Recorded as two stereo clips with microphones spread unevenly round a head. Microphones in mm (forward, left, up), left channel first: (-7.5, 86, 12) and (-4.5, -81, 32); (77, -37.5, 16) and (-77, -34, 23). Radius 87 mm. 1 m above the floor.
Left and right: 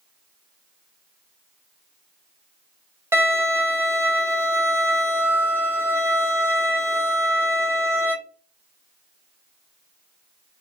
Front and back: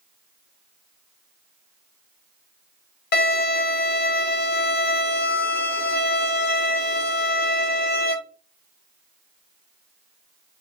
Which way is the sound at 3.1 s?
15° right.